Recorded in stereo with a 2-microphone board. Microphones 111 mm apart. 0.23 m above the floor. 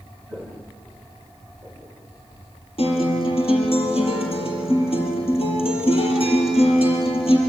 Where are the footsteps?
15° left (ahead or behind), 2.5 m; by 2.0 s 20° left (ahead or behind), 5 m.